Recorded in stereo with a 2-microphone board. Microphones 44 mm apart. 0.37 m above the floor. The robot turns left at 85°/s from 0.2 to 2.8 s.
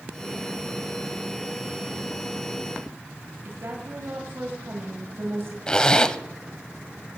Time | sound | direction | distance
3.5 | a woman speaking | 60° right (ahead or behind) | 2 m
5.7 | a zipper | 15° left (ahead or behind) | 0.5 m